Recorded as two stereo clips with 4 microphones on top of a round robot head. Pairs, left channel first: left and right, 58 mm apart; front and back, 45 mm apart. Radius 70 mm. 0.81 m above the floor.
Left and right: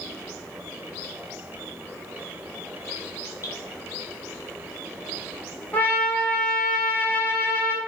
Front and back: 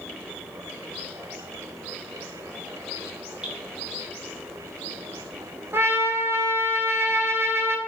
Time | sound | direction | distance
3.4 | dripping | 115° left | 3 m
5.7 | a trumpet | 150° left | 1.5 m